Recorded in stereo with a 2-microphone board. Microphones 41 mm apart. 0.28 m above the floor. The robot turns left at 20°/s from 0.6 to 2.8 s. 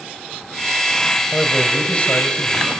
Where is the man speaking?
25° left (ahead or behind), 1.8 m; by 2.8 s 35° left (ahead or behind), 1.8 m.